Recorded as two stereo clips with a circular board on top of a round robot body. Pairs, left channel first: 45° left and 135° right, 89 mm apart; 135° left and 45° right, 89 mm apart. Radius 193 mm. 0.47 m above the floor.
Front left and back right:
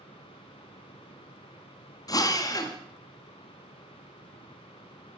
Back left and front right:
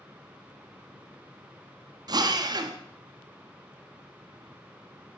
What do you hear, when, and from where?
2.1 s a drill: 5° right, 0.8 m